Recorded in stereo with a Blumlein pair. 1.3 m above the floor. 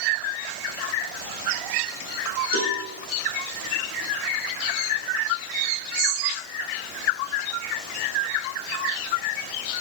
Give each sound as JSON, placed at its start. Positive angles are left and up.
{"t": 2.5, "sound": "a cowbell", "azimuth_deg": -65, "distance_m": 5.0}